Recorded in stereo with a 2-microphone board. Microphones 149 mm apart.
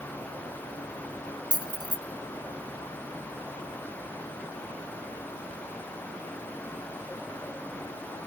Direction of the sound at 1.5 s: 30° right (ahead or behind).